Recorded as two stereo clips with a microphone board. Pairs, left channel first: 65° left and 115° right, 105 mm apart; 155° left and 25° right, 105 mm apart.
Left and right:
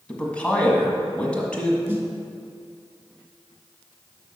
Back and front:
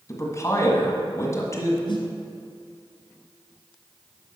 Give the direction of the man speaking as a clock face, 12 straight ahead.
7 o'clock.